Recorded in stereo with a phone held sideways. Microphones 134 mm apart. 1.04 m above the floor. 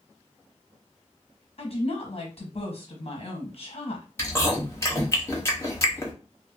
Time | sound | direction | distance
1.6 | a woman speaking | 55° left (ahead or behind) | 1.0 m
4.2 | chewing | 20° left (ahead or behind) | 0.9 m